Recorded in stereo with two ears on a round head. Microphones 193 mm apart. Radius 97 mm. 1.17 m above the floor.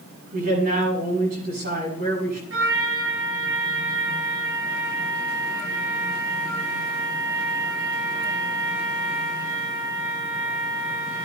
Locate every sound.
0.3 s a man speaking: 50° right (ahead or behind), 7 m
2.5 s a trumpet: 70° right (ahead or behind), 7 m